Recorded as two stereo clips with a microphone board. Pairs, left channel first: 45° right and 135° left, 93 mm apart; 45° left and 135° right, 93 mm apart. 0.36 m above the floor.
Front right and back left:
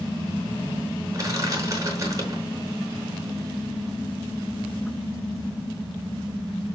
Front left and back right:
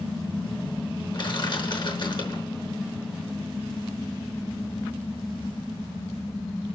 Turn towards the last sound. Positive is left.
turn(degrees=80)